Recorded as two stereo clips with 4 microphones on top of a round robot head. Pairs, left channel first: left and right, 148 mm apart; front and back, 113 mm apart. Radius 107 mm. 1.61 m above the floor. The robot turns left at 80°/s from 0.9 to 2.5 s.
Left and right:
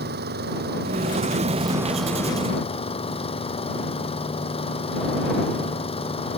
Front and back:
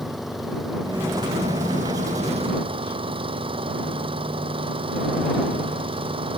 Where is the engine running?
90° right; by 6.4 s 140° left.